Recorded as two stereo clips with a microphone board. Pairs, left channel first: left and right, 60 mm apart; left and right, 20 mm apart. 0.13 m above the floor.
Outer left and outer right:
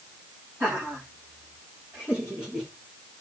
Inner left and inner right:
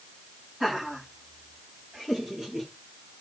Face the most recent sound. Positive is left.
turn(degrees=-15)  # may be behind; listen again after turning